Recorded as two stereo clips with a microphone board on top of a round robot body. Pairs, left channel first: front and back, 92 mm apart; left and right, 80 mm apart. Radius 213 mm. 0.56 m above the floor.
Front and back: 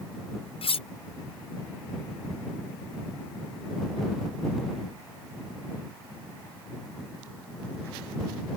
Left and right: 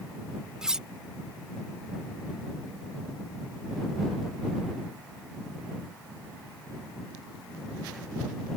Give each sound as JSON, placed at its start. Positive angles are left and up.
{"t": 0.6, "sound": "cutlery clinking", "azimuth_deg": -10}